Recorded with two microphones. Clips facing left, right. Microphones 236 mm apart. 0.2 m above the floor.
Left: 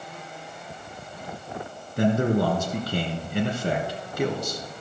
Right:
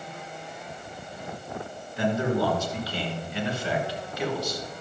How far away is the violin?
No violin in this recording.